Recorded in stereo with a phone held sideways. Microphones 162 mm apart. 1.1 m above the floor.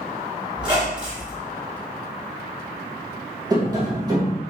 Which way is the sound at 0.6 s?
30° right (ahead or behind).